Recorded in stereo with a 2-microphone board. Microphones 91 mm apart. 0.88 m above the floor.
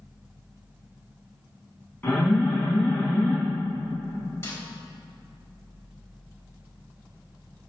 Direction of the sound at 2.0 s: 20° left (ahead or behind).